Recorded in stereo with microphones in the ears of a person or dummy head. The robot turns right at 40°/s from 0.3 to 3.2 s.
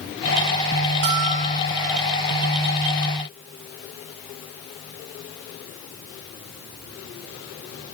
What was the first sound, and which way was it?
A bell, 40° right (ahead or behind).